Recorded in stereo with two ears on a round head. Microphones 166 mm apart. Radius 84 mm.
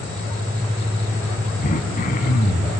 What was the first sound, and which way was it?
Throat clearing, 50° left (ahead or behind).